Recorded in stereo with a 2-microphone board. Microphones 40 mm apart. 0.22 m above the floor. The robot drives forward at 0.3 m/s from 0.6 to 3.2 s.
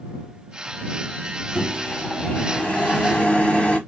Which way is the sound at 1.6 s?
30° left (ahead or behind).